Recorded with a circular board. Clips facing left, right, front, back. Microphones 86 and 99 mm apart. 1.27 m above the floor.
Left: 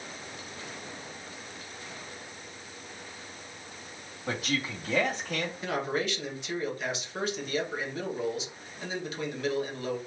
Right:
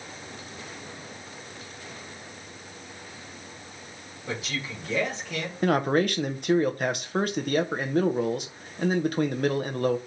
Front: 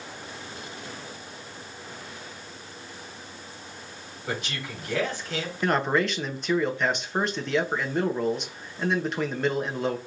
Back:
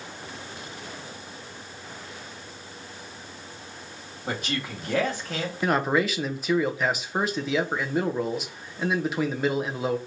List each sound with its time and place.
4.3 s a man speaking: 135° left, 2.5 m
5.6 s a man speaking: 95° right, 0.9 m